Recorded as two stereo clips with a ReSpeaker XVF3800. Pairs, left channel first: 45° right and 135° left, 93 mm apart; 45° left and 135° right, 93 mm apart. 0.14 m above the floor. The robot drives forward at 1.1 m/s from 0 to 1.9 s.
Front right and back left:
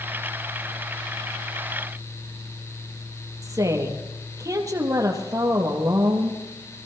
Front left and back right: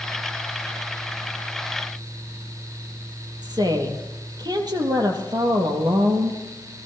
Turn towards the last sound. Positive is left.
turn(degrees=-175)